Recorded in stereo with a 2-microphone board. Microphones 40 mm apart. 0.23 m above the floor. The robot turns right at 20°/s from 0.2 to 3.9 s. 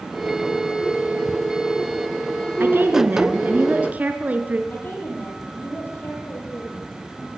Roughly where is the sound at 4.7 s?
Left.